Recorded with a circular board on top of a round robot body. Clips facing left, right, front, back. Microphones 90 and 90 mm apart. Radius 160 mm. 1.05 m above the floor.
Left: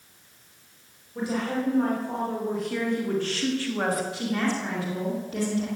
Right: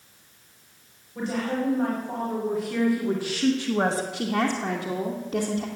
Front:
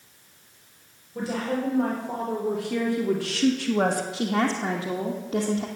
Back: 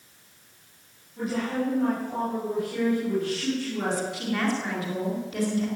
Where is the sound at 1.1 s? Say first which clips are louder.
Even, even; 10° left, 5 m; by 4.0 s 30° right, 1.9 m.